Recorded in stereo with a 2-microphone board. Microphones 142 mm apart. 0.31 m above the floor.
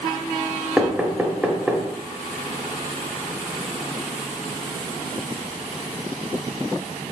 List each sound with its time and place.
0.8 s knocking: 5° right (ahead or behind), 0.6 m